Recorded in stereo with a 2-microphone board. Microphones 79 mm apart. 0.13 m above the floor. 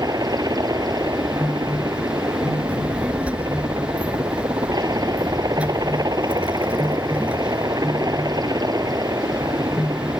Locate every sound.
0.0 s a helicopter: 55° right (ahead or behind)
2.7 s a child speaking: 15° right (ahead or behind)